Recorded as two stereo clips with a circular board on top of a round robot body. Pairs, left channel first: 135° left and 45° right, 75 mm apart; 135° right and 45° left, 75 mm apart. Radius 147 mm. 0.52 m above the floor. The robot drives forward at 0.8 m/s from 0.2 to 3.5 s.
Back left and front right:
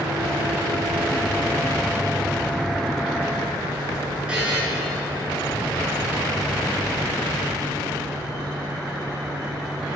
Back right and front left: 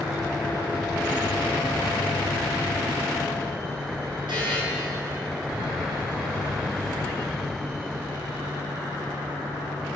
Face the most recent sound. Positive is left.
turn(degrees=30)